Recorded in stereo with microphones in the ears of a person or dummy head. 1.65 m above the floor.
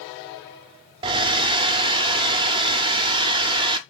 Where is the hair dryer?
25° right (ahead or behind), 0.5 m.